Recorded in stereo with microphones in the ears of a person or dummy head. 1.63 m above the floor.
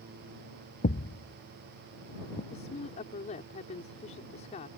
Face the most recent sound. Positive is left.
turn(degrees=35)  # may be behind; listen again after turning